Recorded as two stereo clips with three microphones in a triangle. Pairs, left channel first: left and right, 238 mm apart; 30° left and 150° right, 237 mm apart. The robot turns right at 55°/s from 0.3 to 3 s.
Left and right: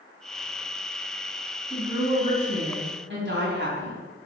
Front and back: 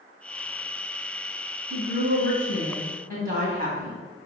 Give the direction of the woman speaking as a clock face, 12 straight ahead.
6 o'clock.